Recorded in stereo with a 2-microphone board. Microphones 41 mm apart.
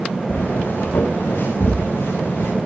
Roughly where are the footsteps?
Left.